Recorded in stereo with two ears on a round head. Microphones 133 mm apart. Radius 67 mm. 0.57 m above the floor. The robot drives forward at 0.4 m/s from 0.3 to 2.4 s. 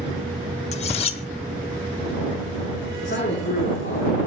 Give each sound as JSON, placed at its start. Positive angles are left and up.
{"t": 0.7, "sound": "cutlery clinking", "side_deg": 50, "distance_m": 1.3}
{"t": 3.0, "sound": "a man speaking", "side_deg": 60, "distance_m": 7.5}